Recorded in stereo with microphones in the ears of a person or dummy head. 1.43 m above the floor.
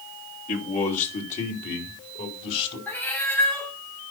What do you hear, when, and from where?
0.5 s a man speaking: 45° left (ahead or behind), 3 m; by 2.8 s 40° left (ahead or behind), 4.5 m
2.9 s a cat meowing: 5° left (ahead or behind), 1.6 m